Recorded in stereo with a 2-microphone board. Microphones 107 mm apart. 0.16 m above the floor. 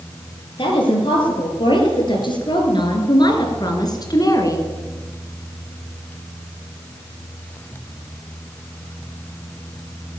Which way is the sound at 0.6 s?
50° left (ahead or behind).